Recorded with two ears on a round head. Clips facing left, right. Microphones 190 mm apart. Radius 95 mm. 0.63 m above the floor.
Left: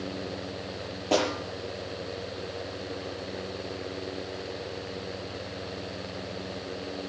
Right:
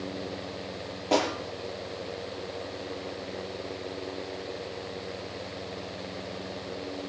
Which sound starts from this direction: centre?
A snare drum, at 1.1 s.